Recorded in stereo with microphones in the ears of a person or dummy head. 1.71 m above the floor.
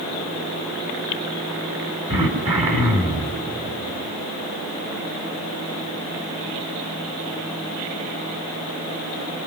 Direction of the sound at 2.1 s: 25° right (ahead or behind).